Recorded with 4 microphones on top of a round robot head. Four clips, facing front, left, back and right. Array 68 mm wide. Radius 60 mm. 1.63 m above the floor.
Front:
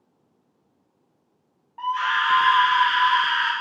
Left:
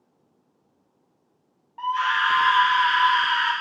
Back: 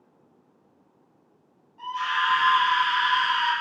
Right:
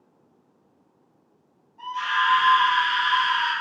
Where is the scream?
45° left, 0.8 m.